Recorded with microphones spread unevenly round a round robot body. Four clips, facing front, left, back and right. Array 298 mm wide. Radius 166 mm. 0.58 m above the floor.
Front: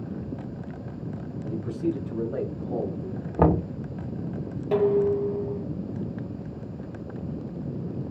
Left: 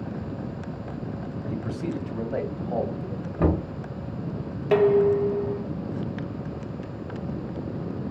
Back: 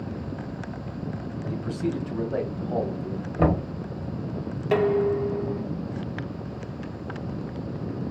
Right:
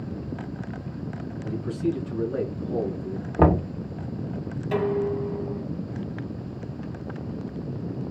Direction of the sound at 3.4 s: 50° right.